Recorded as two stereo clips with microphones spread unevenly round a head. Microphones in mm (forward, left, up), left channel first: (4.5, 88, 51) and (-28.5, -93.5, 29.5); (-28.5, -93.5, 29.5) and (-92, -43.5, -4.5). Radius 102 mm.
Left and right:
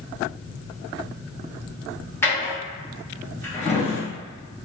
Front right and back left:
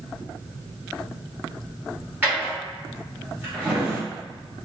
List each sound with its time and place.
2.2 s a drawer: 45° left, 0.9 m